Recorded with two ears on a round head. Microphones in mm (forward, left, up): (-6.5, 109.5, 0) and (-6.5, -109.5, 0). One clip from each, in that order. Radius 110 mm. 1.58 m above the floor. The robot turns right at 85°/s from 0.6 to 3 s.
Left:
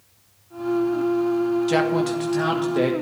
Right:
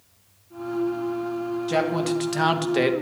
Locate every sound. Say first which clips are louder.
1.7 s a man speaking: left 2 dB; 165° left, 1.6 m; by 2.9 s 90° right, 1.6 m